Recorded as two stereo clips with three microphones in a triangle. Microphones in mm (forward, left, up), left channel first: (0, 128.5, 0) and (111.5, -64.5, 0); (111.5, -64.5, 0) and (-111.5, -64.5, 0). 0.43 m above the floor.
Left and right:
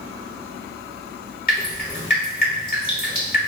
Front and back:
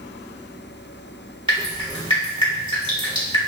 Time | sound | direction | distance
1.5 | dripping | 125° left | 1.1 m